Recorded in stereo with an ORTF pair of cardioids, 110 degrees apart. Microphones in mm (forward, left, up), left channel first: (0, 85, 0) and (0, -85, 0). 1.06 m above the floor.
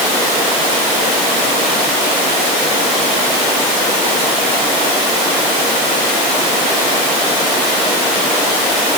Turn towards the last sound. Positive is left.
No sound to turn to.